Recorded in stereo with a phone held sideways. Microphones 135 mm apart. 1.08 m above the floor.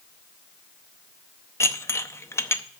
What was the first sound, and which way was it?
Dishes clattering, 20° left (ahead or behind).